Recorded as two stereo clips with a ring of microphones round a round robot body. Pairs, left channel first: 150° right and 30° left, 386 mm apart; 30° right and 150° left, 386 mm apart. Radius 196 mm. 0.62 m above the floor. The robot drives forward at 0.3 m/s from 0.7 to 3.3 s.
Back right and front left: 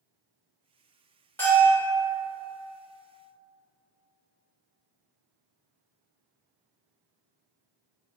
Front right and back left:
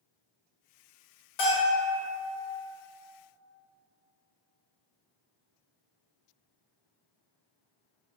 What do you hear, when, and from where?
1.4 s a bell: 65° right, 1.7 m; by 1.9 s 70° right, 1.7 m